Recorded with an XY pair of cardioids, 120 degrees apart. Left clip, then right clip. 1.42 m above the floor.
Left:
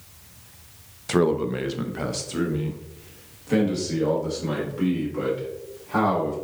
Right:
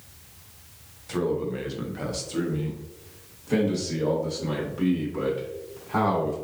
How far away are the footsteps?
I don't hear footsteps.